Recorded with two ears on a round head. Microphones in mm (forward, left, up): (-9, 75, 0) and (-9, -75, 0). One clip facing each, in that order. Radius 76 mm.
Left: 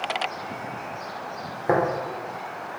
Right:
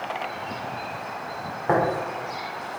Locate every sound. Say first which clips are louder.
1.7 s tapping: even; 25° left (ahead or behind), 1.6 m